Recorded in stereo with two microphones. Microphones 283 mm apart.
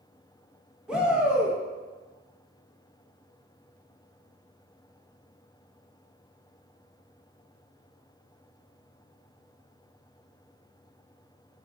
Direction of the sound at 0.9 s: 5° right (ahead or behind).